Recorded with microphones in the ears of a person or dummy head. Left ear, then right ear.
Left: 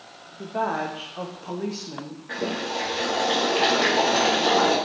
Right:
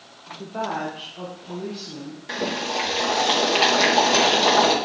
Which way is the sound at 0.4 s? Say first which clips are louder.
Left 2 dB; 5° left (ahead or behind).